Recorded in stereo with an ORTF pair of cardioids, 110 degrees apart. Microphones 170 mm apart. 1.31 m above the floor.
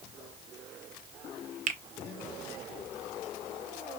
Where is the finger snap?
50° right, 0.7 m.